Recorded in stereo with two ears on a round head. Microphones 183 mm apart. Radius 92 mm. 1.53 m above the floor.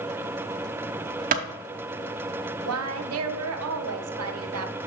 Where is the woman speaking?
85° right, 0.9 m.